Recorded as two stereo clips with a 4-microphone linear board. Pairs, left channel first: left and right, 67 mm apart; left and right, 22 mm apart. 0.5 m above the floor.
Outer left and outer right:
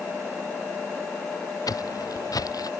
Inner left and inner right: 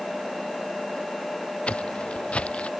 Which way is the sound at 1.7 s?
65° left (ahead or behind).